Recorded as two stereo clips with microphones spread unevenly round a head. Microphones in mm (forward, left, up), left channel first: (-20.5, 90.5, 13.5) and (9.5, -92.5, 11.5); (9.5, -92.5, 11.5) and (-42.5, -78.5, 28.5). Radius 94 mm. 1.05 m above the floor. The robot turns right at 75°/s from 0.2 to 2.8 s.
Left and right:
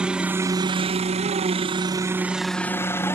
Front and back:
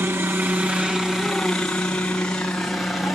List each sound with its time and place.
0.0 s a helicopter: 160° right; by 3.2 s 35° left